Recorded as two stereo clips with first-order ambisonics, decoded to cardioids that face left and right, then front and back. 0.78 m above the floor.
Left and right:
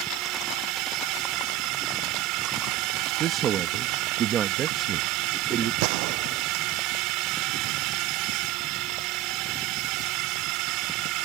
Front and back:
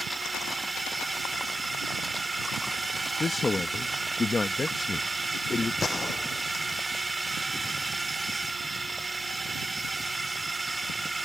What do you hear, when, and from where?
0.0 s a drone: 100° right
3.2 s a man speaking: 65° right
5.8 s a gunshot: 75° right